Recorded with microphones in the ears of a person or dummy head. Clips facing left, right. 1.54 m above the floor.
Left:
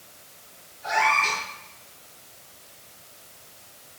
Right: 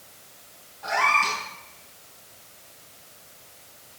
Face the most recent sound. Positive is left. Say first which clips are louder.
# left 1 dB
turn(degrees=-80)